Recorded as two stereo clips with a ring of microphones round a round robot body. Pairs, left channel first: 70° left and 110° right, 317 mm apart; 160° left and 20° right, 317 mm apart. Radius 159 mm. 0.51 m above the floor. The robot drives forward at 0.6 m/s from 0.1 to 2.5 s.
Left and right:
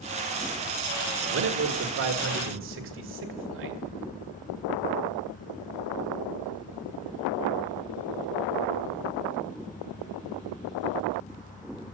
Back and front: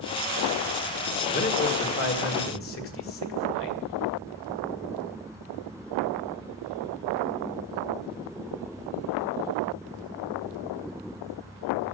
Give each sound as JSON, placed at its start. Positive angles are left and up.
{"t": 1.3, "sound": "a man speaking", "azimuth_deg": -145, "distance_m": 1.4}